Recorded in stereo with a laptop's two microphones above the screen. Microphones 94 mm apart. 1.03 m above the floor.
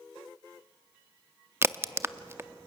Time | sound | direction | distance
1.6 | a crack | 25° right (ahead or behind) | 0.5 m